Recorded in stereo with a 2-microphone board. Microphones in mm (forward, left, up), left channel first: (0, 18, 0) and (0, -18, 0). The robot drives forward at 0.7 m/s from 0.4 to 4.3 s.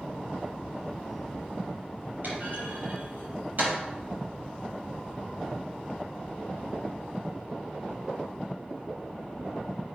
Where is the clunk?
50° right (ahead or behind), 6 m; by 3.7 s 45° right (ahead or behind), 6.5 m.